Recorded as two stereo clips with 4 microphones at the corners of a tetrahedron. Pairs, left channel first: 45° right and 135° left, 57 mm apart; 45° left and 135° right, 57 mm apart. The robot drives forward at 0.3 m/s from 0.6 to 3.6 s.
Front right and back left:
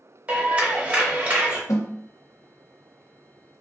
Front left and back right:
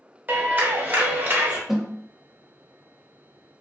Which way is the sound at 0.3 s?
170° right.